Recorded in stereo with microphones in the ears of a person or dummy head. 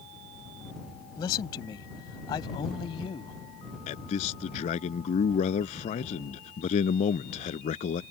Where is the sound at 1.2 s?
25° left (ahead or behind); by 3.4 s 30° left (ahead or behind).